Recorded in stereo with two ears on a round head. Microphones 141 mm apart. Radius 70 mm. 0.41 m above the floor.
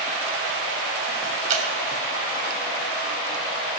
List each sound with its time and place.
1.5 s dripping: 50° right (ahead or behind), 2.5 m